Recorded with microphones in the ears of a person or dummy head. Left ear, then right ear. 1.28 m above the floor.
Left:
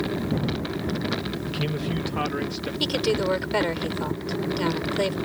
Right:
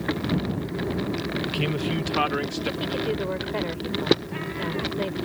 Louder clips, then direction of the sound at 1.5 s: Right 2 dB; 15° right (ahead or behind).